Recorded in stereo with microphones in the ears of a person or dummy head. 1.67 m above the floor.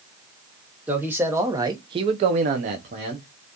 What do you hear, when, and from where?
0.9 s a man speaking: 10° right (ahead or behind), 1.2 m; by 3.3 s 30° right (ahead or behind), 0.9 m